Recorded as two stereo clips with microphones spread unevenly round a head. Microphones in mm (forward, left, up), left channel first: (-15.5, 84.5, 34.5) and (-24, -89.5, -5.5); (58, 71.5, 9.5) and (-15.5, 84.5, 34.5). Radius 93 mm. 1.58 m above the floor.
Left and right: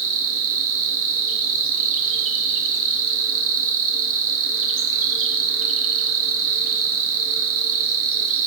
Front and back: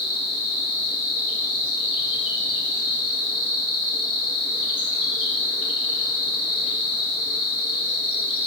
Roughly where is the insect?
Ahead right.